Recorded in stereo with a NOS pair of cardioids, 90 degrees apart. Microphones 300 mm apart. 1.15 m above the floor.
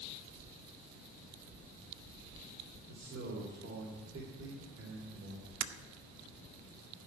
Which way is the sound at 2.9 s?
50° right.